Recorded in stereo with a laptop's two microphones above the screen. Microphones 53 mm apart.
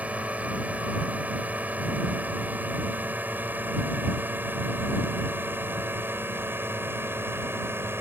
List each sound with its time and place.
0.0 s a drone: 25° right (ahead or behind); by 8.0 s 45° right (ahead or behind)